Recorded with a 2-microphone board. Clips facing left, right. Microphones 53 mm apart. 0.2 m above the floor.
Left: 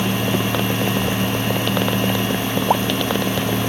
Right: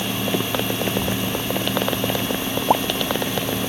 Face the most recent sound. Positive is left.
turn(degrees=-45)  # may be behind; listen again after turning